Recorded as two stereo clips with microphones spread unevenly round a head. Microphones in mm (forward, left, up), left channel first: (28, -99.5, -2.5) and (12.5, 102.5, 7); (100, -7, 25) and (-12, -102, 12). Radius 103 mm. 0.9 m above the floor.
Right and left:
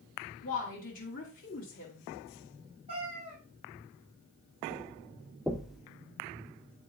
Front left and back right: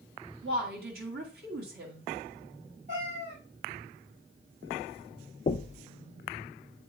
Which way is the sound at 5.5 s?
5° left.